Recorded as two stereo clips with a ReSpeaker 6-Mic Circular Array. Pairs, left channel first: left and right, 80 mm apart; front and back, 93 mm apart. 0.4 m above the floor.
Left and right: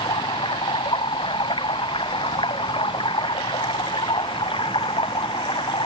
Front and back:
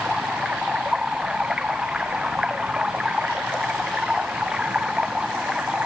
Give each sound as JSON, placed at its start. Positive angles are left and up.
{"t": 0.0, "sound": "running water", "azimuth_deg": 100}